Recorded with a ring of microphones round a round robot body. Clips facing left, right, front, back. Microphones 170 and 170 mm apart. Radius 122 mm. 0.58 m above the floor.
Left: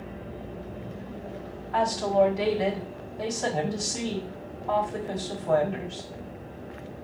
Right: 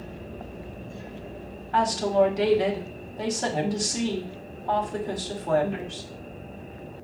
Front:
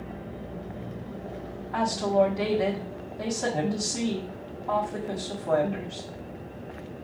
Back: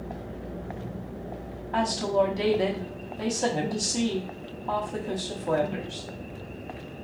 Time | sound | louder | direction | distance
1.7 | a woman speaking | right 1 dB, front 1 dB | 130° right | 1.3 m